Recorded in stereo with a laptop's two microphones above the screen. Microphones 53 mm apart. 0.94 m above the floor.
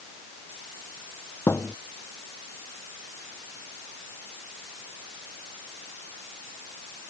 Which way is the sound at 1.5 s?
50° left (ahead or behind).